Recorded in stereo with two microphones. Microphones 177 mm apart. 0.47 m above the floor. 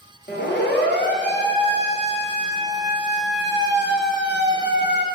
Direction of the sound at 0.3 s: 70° left (ahead or behind).